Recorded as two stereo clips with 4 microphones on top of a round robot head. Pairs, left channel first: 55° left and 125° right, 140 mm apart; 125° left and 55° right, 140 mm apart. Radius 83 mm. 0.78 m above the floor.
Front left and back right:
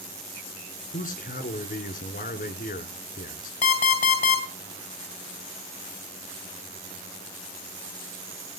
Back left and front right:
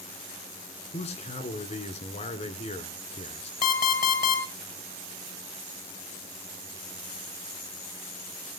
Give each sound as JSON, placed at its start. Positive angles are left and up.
{"t": 0.9, "sound": "a man speaking", "azimuth_deg": 85, "distance_m": 2.5}
{"t": 3.6, "sound": "an alarm clock", "azimuth_deg": 95, "distance_m": 2.5}